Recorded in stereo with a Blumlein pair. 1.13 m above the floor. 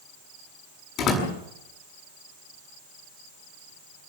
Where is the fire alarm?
No fire alarm in this recording.